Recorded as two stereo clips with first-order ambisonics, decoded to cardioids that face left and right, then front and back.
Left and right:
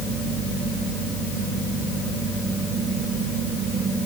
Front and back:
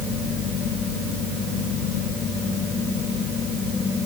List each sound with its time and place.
Only background noise.